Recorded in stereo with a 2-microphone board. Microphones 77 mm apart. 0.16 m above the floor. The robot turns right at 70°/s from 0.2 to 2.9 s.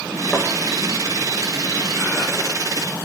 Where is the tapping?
5° left (ahead or behind), 2.0 m; by 0.5 s 15° left (ahead or behind), 2.0 m.